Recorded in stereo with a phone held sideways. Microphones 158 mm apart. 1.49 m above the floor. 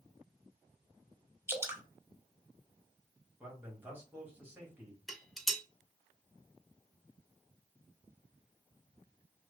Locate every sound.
1.5 s dripping: 15° right (ahead or behind), 0.6 m
3.4 s a man speaking: 10° right (ahead or behind), 1.7 m
5.1 s dishes clattering: centre (ahead or behind), 0.7 m